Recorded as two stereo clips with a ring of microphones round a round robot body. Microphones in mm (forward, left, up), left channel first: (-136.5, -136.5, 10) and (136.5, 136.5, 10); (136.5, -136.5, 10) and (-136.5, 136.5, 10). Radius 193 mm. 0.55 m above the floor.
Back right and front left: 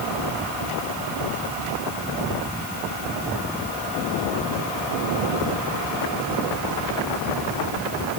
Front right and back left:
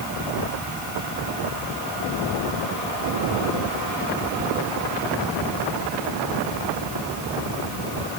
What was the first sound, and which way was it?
Only background noise.